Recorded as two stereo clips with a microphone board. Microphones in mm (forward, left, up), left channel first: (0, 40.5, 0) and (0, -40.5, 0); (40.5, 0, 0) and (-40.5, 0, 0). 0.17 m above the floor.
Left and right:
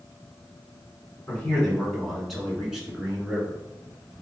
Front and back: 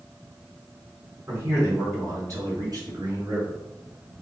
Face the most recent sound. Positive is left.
turn(degrees=-160)